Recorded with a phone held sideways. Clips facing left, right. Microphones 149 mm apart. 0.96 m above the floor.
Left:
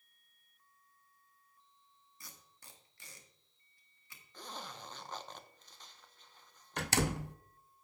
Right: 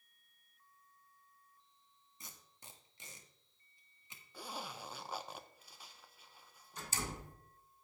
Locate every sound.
2.2 s tape being pulled: 20° right (ahead or behind), 1.5 m
4.3 s a zipper: 10° right (ahead or behind), 0.8 m
6.8 s a door slam: 70° left (ahead or behind), 0.5 m